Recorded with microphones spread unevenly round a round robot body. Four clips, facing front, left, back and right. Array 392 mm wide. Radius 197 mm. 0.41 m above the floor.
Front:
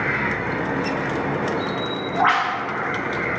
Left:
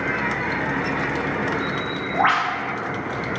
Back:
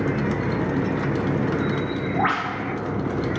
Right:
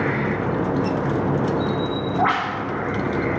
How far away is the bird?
About 2.5 m.